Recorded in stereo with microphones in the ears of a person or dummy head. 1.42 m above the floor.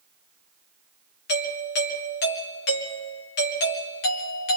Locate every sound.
1.3 s a doorbell: 55° left (ahead or behind), 2 m